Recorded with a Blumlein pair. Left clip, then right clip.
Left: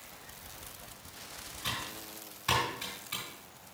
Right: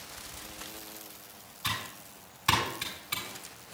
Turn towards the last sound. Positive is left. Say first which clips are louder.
# right 3 dB
turn(degrees=-15)